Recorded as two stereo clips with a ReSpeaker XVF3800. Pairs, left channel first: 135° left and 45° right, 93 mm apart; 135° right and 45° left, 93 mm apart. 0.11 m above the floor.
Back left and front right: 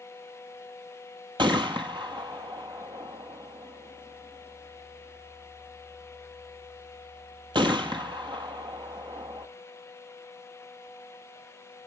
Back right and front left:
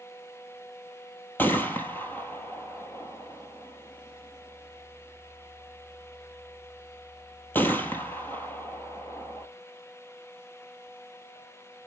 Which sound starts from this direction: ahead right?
A gunshot, at 1.4 s.